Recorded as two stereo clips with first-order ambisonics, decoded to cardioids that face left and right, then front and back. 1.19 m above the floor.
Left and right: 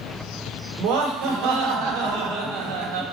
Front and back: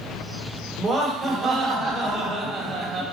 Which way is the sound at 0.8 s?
100° right.